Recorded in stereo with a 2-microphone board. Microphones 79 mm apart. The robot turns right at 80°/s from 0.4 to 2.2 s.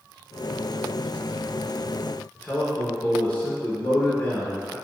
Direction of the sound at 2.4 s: 20° left (ahead or behind).